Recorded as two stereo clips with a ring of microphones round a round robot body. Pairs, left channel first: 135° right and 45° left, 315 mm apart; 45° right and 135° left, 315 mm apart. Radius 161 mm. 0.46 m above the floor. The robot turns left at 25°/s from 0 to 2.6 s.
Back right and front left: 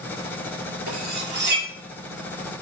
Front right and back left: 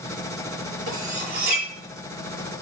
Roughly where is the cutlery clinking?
Ahead left.